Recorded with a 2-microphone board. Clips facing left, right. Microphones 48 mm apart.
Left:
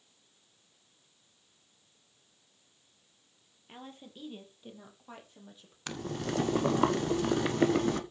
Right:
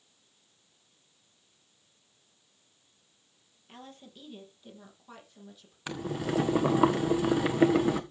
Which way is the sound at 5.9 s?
10° right (ahead or behind).